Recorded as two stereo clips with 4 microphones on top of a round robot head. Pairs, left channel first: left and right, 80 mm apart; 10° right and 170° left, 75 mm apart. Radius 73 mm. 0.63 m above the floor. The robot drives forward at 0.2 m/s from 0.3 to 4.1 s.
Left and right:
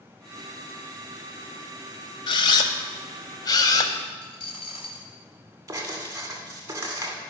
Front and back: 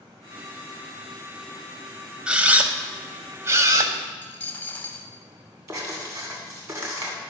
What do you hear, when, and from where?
2.3 s a camera shutter: 95° left, 0.6 m; by 3.9 s 130° left, 0.7 m
4.2 s a dropped coin: 60° left, 0.9 m
5.7 s writing: 140° right, 2 m